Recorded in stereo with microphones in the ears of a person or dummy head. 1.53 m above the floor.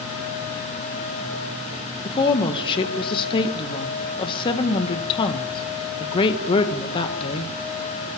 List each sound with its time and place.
2.0 s a woman speaking: 25° left (ahead or behind), 1.7 m